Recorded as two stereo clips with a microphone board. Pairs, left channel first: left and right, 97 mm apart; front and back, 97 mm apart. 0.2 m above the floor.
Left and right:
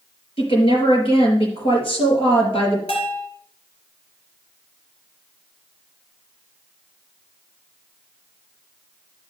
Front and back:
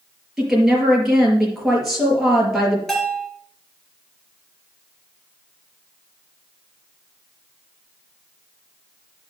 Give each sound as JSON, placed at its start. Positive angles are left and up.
{"t": 0.4, "sound": "a woman speaking", "azimuth_deg": 95, "distance_m": 4.5}
{"t": 2.9, "sound": "a bell", "azimuth_deg": 85, "distance_m": 2.5}